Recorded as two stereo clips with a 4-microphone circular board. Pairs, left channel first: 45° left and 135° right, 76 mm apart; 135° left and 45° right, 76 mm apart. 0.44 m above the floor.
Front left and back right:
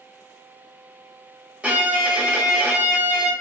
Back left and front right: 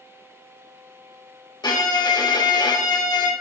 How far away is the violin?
About 0.7 m.